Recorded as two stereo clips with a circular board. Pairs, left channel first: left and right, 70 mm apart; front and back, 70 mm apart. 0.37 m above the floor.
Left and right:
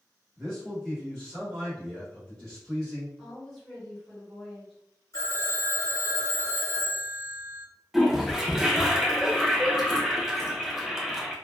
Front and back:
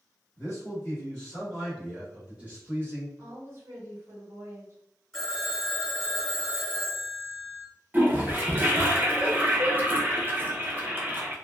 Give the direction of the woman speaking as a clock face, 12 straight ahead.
6 o'clock.